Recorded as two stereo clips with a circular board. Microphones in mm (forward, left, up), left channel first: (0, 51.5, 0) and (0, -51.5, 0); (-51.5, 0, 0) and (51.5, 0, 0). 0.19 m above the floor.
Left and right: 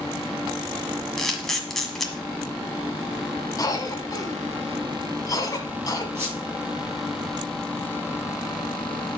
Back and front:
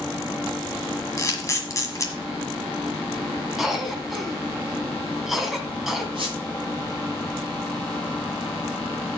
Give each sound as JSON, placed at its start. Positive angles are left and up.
{"t": 1.2, "sound": "a camera shutter", "azimuth_deg": 175, "distance_m": 1.6}
{"t": 3.6, "sound": "a cough", "azimuth_deg": 85, "distance_m": 1.6}
{"t": 6.2, "sound": "a squeak", "azimuth_deg": -30, "distance_m": 7.0}